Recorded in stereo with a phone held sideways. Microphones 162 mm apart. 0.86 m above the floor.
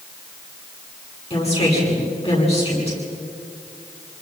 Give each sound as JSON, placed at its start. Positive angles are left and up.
{"t": 1.3, "sound": "a woman speaking", "side_deg": 40, "distance_m": 9.5}